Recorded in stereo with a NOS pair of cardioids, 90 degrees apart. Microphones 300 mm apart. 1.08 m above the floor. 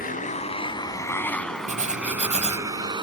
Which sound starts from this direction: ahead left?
A motorcycle, at 0.0 s.